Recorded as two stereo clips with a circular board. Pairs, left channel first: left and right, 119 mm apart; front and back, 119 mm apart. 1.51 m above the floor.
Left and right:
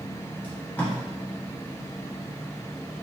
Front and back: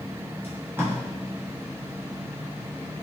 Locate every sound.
0.4 s tape being pulled: 145° left, 0.9 m